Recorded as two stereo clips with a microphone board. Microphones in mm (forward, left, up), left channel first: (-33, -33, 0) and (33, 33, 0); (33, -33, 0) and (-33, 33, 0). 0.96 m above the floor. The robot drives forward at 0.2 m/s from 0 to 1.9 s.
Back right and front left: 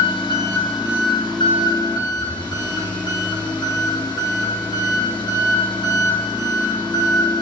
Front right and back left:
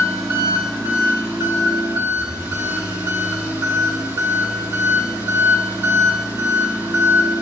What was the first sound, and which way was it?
An engine running, 165° right.